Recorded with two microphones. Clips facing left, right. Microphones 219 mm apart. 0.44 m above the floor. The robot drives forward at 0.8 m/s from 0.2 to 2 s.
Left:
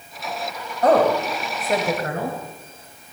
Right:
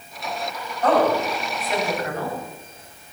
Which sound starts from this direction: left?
A woman speaking, at 0.8 s.